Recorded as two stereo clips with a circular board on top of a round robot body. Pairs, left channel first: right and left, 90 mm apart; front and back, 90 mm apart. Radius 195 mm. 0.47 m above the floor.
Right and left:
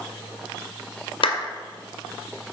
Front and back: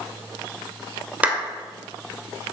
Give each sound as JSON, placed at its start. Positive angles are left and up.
{"t": 1.2, "sound": "a clap", "azimuth_deg": -105, "distance_m": 2.0}